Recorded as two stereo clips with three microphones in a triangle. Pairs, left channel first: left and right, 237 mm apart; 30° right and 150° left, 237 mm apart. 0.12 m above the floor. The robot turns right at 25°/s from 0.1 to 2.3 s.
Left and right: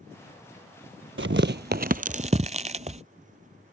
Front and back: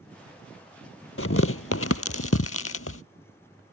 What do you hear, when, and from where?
1.2 s tearing paper: 55° right; by 3.0 s 30° right